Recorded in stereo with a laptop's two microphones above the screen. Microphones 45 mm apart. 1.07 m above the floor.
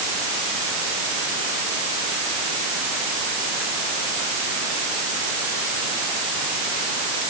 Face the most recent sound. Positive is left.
No sound to turn to.